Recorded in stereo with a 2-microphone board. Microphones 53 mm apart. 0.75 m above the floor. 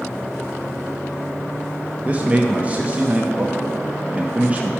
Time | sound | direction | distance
2.0 | a man speaking | 25° right (ahead or behind) | 0.7 m